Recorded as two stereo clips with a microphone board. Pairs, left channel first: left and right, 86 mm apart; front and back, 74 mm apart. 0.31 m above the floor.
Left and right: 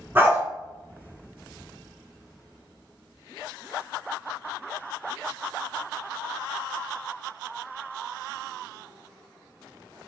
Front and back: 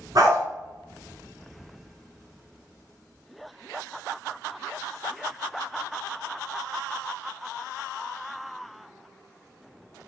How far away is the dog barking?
About 1.6 m.